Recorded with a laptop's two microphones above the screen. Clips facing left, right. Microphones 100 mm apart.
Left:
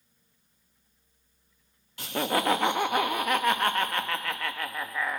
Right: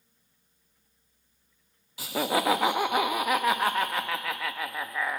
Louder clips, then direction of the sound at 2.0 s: Right 1 dB; 5° right (ahead or behind).